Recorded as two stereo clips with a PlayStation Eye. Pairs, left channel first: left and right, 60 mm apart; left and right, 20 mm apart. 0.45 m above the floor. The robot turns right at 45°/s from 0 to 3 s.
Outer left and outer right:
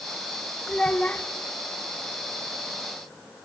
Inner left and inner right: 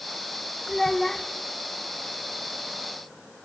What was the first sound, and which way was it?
A child speaking, 15° left (ahead or behind).